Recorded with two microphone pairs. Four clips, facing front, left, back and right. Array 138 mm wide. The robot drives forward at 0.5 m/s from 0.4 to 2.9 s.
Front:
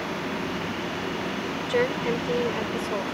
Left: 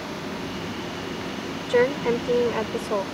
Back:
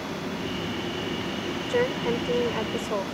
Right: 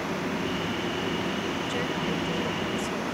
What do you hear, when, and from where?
1.7 s a woman speaking: 95° left; by 3.0 s 105° left